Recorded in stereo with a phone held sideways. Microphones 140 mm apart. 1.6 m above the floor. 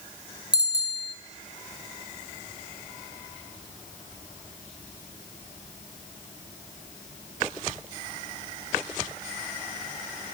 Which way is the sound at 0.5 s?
30° left (ahead or behind).